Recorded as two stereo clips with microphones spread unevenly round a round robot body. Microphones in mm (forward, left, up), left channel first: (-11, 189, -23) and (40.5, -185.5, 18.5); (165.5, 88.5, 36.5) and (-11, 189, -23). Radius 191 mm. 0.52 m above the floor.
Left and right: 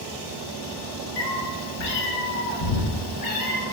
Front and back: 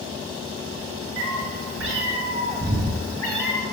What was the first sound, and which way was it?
A cat meowing, 140° left.